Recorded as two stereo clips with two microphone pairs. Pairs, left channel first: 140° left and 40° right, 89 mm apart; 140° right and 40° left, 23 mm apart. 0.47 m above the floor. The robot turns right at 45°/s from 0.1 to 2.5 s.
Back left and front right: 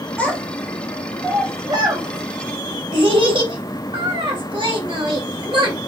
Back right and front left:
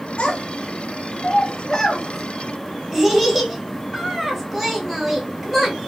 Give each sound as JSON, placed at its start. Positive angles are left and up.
{"t": 0.2, "sound": "a child speaking", "azimuth_deg": -150, "distance_m": 1.6}